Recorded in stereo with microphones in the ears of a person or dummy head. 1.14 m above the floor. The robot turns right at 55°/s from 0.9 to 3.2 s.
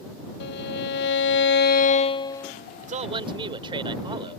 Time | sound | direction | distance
0.4 | a violin | 75° left | ?
2.8 | a man speaking | 50° right (ahead or behind) | ?